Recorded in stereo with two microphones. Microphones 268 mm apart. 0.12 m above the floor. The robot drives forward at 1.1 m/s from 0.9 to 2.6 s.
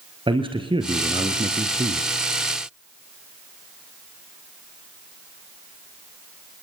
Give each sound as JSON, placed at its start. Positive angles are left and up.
{"t": 0.3, "sound": "a man speaking", "side_deg": -20, "distance_m": 2.5}